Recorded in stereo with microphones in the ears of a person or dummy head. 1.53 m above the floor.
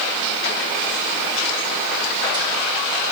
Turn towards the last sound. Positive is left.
No sound to turn to.